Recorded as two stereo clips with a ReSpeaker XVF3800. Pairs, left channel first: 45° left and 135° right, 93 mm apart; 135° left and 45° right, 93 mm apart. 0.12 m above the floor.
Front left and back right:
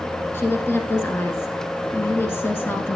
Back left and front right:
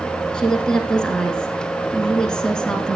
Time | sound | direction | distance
0.3 | a woman speaking | 60° left | 1.1 m